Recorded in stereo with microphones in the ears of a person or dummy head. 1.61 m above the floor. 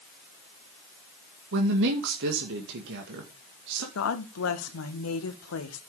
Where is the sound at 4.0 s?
85° left, 1.7 m.